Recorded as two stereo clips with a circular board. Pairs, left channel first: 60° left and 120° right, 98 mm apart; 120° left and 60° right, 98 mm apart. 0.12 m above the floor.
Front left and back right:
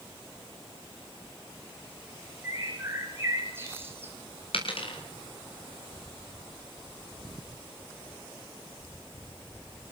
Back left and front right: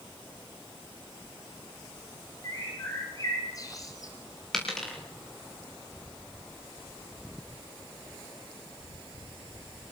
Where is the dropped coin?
35° left, 8 m.